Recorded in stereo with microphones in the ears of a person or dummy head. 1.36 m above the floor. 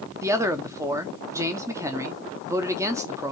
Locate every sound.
0.2 s a man speaking: 15° right (ahead or behind), 0.8 m